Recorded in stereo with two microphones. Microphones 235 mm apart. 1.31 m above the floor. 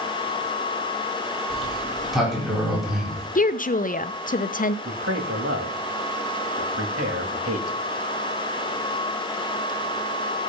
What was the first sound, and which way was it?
A sliding door, centre (ahead or behind).